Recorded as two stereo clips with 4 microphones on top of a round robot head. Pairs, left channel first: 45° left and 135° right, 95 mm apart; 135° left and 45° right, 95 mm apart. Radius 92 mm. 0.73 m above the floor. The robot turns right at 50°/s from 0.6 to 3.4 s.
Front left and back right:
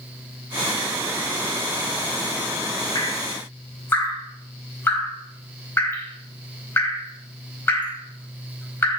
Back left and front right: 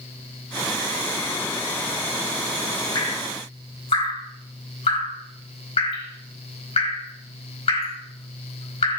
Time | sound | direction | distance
3.0 | dripping | 90° left | 4.5 m